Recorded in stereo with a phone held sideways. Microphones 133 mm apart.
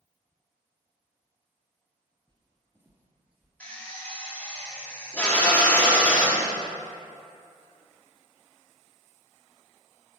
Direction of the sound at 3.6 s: 10° left (ahead or behind).